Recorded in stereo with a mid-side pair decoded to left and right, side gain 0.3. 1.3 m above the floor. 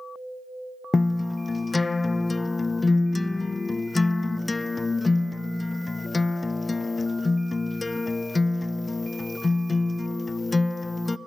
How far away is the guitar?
About 0.5 m.